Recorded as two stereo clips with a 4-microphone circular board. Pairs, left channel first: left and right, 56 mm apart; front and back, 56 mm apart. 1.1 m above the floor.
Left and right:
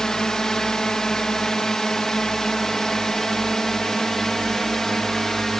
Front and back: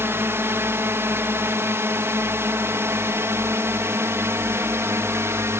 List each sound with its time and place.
0.0 s a drone: 170° left; by 5.6 s 175° left